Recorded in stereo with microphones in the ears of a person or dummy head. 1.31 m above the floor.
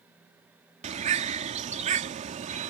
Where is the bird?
35° right (ahead or behind).